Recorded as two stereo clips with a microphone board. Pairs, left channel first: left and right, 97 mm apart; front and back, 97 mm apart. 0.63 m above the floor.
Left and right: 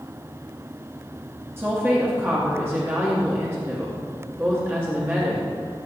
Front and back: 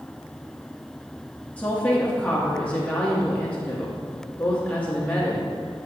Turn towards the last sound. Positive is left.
turn(degrees=-55)